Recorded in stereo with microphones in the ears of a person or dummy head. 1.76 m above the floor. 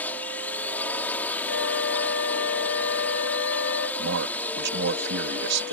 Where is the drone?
10° left (ahead or behind).